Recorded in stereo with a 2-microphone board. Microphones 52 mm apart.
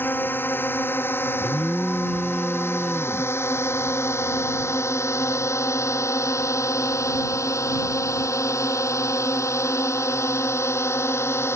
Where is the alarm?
10° left (ahead or behind).